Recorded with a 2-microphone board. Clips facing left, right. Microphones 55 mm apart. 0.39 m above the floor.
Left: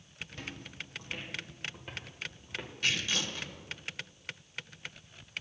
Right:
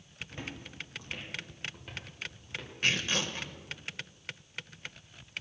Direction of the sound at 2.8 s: 45° right (ahead or behind).